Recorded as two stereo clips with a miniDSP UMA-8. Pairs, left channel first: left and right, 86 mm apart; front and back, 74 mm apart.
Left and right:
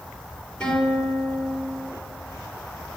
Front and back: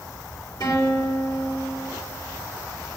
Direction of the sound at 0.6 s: 15° left.